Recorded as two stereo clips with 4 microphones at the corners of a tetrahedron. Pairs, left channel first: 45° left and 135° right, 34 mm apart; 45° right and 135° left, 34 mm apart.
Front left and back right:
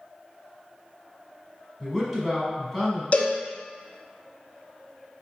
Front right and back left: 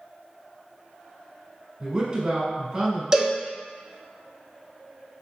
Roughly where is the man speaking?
Behind left.